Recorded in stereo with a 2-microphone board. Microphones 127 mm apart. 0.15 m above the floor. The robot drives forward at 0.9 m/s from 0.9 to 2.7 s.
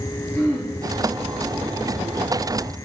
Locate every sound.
0.3 s throat clearing: 10° left (ahead or behind), 2.5 m